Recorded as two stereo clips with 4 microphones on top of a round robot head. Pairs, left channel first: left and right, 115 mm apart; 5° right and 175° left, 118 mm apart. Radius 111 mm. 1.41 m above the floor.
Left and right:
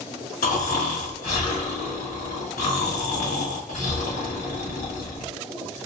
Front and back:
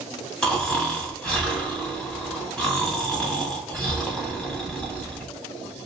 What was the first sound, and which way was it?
Snoring, 80° left.